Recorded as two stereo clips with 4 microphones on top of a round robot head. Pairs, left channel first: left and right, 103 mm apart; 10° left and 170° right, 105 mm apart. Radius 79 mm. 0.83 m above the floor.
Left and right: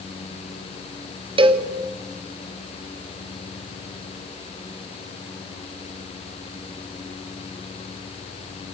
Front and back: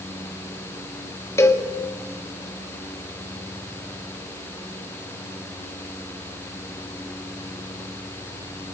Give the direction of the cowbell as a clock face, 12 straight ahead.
2 o'clock.